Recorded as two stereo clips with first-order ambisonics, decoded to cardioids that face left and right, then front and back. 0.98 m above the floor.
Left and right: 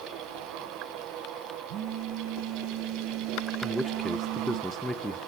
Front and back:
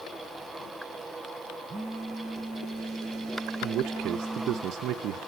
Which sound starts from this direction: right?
A phone buzzing, at 1.7 s.